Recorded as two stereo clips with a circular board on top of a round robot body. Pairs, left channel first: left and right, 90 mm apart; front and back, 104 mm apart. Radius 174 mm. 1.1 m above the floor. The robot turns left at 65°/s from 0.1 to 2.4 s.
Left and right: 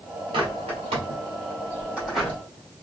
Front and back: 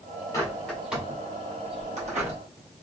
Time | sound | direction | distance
0.3 | a bird | 60° right | 1.2 m